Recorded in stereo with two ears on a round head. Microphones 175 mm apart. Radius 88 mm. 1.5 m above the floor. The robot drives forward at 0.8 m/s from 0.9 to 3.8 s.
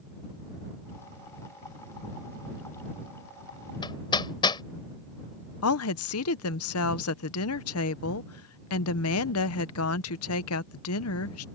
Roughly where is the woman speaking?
Left.